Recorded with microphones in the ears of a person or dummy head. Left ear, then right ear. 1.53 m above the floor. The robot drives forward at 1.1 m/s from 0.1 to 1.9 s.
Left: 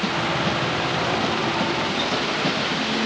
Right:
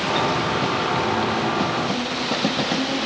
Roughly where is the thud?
I don't hear a thud.